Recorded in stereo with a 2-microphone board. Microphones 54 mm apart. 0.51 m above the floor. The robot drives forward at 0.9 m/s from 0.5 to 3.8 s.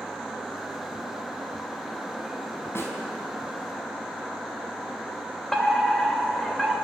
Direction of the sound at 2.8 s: 50° left (ahead or behind).